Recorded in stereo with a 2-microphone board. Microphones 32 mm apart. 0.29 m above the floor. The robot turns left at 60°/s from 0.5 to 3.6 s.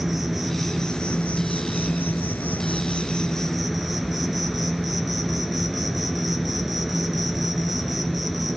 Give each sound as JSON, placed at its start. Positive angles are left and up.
{"t": 0.0, "sound": "an insect", "azimuth_deg": 180, "distance_m": 2.5}